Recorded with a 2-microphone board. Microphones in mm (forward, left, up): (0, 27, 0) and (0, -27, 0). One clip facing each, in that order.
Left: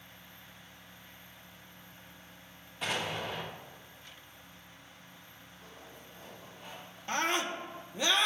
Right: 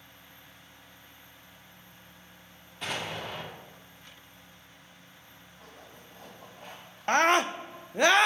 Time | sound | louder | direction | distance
2.8 | an explosion | even | 5° left (ahead or behind) | 2 m
5.6 | a zipper | right 1 dB | 55° right (ahead or behind) | 3 m
7.1 | a scream | right 9 dB | 60° right (ahead or behind) | 0.6 m